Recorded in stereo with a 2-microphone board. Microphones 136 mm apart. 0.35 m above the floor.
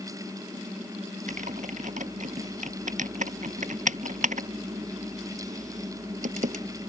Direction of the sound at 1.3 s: 75° right (ahead or behind).